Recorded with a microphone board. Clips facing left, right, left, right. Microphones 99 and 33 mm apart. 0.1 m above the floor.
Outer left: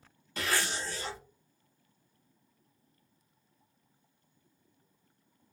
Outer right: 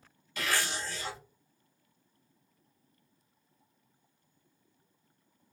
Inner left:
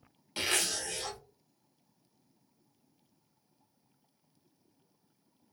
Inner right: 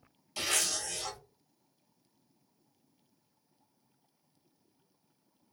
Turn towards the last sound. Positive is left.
turn(degrees=35)  # may be behind; listen again after turning